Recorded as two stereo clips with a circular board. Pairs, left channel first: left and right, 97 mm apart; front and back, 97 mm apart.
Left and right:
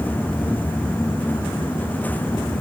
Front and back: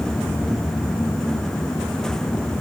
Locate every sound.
Only background noise.